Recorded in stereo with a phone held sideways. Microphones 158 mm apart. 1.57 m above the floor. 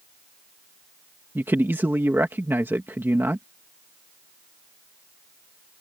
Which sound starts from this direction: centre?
A man speaking, at 1.4 s.